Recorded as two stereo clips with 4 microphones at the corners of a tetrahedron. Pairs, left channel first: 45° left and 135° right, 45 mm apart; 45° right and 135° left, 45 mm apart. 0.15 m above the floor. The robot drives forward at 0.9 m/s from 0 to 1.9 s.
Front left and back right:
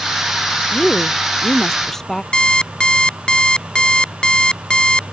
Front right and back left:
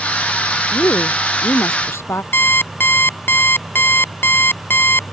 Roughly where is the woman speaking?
Ahead right.